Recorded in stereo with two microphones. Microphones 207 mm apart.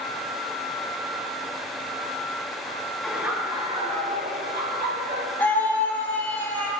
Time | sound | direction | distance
3.0 | laughter | centre (ahead or behind) | 1.7 m
5.4 | a scream | 10° left (ahead or behind) | 3.5 m